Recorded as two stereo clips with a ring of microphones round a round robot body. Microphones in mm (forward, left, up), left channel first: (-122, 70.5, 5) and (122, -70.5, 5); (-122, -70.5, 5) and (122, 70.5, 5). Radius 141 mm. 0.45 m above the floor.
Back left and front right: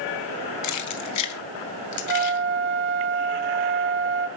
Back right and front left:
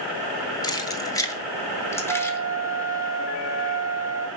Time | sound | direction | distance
0.6 | keys jangling | 135° left | 1.5 m
2.1 | a flute | 40° right | 1.6 m